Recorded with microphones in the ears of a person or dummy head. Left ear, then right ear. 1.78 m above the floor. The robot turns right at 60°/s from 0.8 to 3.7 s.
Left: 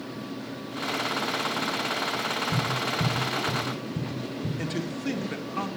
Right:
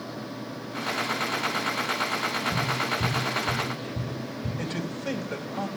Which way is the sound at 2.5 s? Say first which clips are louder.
Right 1 dB; 10° left (ahead or behind).